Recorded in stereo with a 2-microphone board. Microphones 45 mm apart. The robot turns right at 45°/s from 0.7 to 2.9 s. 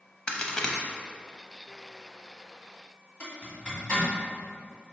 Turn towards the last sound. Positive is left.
turn(degrees=25)  # may be behind; listen again after turning